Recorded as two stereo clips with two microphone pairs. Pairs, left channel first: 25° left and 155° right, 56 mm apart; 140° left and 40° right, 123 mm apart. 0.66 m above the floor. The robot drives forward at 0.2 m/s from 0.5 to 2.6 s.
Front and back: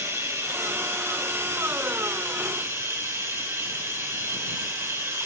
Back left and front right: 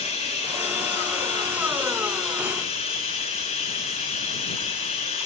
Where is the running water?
175° left, 3 m.